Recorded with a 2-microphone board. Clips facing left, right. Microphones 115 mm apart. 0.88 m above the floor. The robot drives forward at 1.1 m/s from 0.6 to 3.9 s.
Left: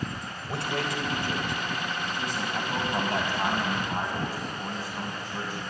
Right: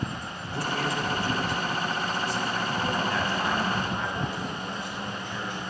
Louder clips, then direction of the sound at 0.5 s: Right 1 dB; 75° left (ahead or behind).